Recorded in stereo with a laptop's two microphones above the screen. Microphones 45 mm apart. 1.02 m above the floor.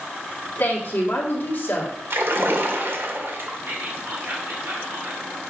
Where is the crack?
No crack in this recording.